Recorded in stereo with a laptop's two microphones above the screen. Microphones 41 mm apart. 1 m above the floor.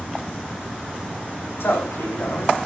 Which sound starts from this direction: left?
A man speaking, at 1.6 s.